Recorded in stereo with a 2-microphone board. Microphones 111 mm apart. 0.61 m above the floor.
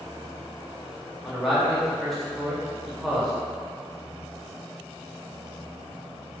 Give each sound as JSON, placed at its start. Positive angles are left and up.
{"t": 1.2, "sound": "a man speaking", "side_deg": 0, "distance_m": 0.7}